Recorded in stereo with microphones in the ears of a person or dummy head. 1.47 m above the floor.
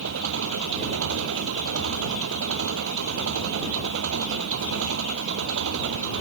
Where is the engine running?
70° right (ahead or behind).